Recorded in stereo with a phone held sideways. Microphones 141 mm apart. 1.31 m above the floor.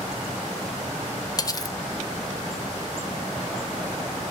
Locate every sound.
1.4 s cutlery clinking: 30° left (ahead or behind), 0.6 m